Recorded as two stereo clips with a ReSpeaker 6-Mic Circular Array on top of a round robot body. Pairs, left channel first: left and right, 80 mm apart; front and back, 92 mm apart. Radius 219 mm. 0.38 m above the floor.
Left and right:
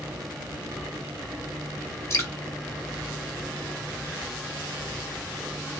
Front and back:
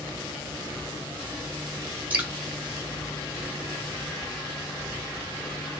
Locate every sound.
2.1 s dripping: 120° left, 1.6 m